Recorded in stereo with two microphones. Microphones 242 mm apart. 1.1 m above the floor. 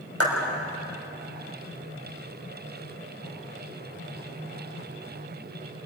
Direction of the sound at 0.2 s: 85° right.